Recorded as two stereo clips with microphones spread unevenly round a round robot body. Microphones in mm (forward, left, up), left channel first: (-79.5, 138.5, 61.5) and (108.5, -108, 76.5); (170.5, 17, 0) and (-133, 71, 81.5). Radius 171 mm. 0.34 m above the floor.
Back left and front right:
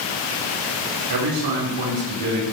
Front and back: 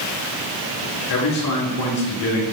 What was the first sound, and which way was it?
A man speaking, 45° right.